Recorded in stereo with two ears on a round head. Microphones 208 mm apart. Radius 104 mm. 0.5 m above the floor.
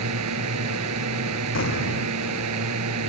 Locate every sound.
0.0 s a drone: 80° right
1.6 s an explosion: 55° left (ahead or behind)